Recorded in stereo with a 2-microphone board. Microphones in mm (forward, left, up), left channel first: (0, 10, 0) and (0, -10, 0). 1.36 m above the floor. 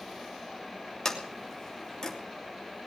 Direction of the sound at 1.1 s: 35° left (ahead or behind).